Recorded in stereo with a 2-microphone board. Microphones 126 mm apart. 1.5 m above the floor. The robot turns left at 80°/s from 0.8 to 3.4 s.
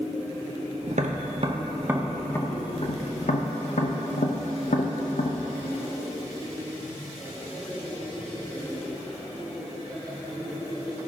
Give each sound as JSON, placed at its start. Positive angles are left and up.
{"t": 0.9, "sound": "tapping", "side_deg": -65, "distance_m": 0.7}